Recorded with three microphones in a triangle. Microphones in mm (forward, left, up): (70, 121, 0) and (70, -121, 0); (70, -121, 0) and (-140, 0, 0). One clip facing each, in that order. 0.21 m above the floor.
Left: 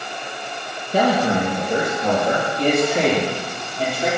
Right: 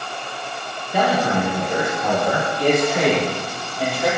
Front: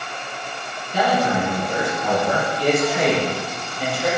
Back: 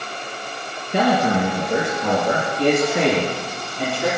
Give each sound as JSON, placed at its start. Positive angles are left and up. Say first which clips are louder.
{"t": 0.9, "sound": "a man speaking", "louder": "left 2 dB, back 2 dB", "azimuth_deg": 150, "distance_m": 5.5}